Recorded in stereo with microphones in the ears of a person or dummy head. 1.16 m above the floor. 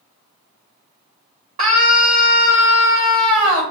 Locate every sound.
1.6 s a scream: 40° right (ahead or behind), 1.6 m